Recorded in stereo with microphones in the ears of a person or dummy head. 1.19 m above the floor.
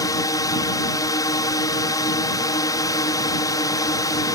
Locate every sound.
0.0 s a drone: 20° left (ahead or behind)